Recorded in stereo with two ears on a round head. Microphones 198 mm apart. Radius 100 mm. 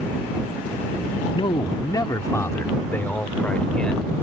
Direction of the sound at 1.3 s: 20° left (ahead or behind).